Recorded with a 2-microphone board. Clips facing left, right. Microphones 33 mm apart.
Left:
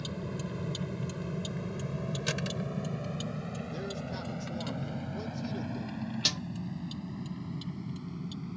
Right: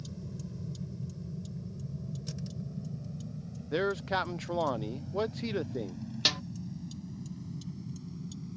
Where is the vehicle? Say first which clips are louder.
Left 6 dB; 60° left (ahead or behind); by 8.6 s 45° left (ahead or behind).